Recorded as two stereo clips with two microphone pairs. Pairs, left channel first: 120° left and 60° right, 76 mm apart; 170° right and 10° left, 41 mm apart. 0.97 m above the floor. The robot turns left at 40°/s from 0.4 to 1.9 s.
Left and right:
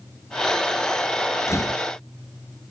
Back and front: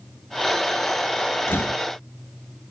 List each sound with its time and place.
1.5 s a door slam: 175° left; by 1.8 s 160° left